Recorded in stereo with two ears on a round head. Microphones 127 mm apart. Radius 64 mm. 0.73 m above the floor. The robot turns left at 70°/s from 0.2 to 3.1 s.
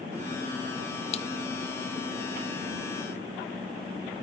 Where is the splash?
45° left (ahead or behind); by 1.3 s 40° left (ahead or behind).